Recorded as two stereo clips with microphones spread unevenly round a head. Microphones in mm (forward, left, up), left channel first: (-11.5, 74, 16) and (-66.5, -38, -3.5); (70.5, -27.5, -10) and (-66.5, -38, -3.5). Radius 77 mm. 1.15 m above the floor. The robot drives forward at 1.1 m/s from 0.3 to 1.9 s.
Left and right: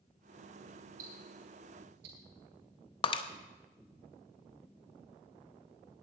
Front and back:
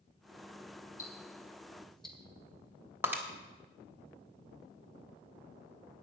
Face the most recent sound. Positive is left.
turn(degrees=110)